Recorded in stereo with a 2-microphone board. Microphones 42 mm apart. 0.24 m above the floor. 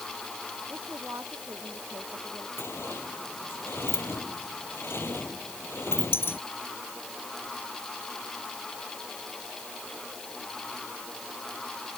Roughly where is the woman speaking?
Right.